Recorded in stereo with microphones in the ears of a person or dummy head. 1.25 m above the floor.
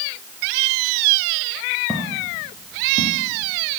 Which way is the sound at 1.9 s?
5° left (ahead or behind).